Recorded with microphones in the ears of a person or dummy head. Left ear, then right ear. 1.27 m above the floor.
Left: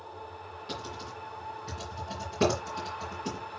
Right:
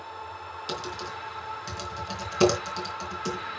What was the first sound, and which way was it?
Typing on a keyboard, 65° right (ahead or behind).